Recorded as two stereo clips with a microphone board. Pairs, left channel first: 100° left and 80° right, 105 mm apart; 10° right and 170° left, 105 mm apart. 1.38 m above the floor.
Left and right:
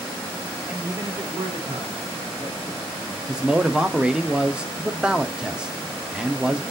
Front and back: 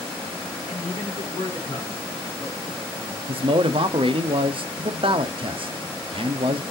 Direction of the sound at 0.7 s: Straight ahead.